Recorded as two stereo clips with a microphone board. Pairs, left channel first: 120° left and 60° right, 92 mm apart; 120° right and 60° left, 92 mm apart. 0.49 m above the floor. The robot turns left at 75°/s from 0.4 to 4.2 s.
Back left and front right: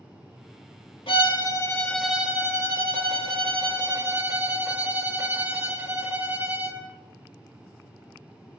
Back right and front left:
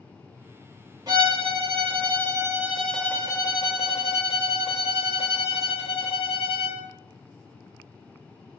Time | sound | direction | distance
1.1 | a violin | 105° left | 0.7 m